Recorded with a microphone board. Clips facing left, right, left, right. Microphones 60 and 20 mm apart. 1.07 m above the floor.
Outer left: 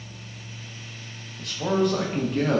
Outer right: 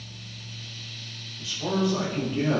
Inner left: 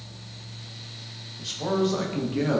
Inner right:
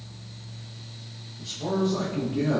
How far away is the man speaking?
About 0.6 m.